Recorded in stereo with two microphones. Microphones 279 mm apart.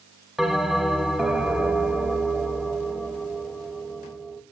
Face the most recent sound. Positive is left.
turn(degrees=0)  # may be behind; listen again after turning